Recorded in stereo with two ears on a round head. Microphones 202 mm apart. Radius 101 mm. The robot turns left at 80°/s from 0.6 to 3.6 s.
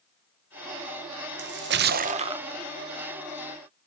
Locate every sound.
1.4 s a splash: 75° right, 0.7 m; by 2.5 s 160° right, 0.7 m